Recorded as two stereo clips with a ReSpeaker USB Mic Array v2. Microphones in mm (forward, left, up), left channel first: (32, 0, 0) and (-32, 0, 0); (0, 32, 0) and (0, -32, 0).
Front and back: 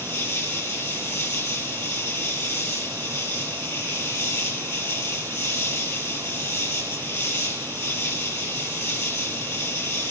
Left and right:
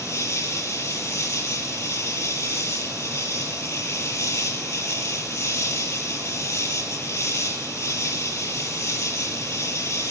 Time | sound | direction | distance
0.0 | an insect | 45° left | 6 m